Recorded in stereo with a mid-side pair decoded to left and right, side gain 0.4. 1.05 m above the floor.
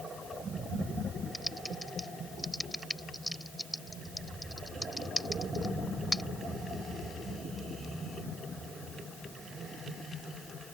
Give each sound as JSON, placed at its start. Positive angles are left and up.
{"t": 1.3, "sound": "typing on a keyboard", "azimuth_deg": 5}